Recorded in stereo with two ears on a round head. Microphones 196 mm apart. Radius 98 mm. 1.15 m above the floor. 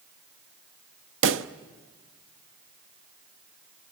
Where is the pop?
60° right (ahead or behind), 0.8 m.